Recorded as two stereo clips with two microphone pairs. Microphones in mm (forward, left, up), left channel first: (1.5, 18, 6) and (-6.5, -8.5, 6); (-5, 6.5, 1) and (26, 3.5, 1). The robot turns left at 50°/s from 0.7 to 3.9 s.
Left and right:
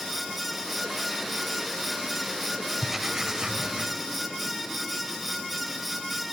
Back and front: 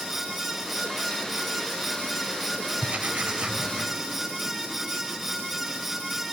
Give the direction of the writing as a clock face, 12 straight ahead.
1 o'clock.